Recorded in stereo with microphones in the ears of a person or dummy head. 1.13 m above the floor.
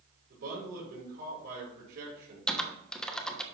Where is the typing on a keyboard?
5° left (ahead or behind), 1.1 m.